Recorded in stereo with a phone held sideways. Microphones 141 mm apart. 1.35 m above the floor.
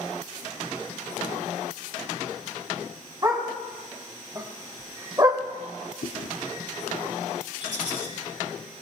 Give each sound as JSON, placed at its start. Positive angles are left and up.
{"t": 3.2, "sound": "a dog barking", "side_deg": -25, "distance_m": 3.5}
{"t": 6.0, "sound": "chewing", "side_deg": 65, "distance_m": 0.8}
{"t": 7.6, "sound": "a rattle", "side_deg": -70, "distance_m": 6.5}